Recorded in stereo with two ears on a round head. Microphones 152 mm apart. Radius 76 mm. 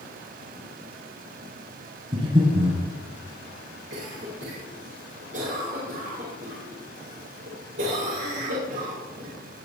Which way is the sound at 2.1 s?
35° right (ahead or behind).